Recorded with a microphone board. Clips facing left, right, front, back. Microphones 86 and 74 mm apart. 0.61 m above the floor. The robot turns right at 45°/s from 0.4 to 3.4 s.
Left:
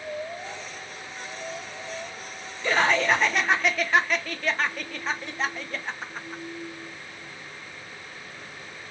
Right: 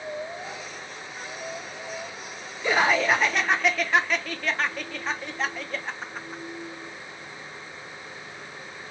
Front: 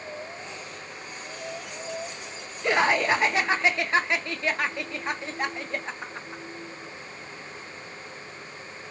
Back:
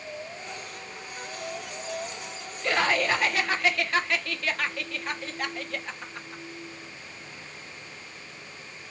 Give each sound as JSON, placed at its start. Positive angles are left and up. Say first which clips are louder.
{"t": 2.6, "sound": "laughter", "louder": "even, front 3 dB", "azimuth_deg": -35, "distance_m": 0.6}